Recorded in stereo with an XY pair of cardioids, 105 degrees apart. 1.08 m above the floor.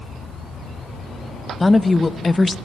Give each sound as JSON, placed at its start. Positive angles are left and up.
{"t": 1.6, "sound": "a woman speaking", "azimuth_deg": 20, "distance_m": 0.7}